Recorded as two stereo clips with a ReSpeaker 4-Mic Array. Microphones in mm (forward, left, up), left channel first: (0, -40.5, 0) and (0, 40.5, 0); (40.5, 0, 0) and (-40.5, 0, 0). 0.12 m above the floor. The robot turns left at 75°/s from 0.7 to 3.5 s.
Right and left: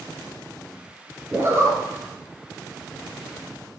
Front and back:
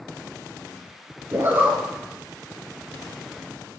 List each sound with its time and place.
1.3 s a zipper: 145° left, 1.6 m; by 1.8 s 110° left, 1.6 m